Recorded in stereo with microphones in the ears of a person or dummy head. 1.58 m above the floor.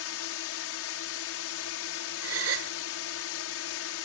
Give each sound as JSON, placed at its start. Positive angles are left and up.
{"t": 0.0, "sound": "a drone", "side_deg": 70}
{"t": 2.2, "sound": "a gasp", "side_deg": -80}